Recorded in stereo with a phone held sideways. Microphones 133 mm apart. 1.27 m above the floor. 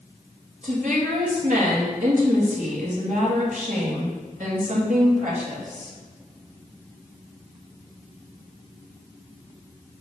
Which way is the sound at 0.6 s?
65° right (ahead or behind).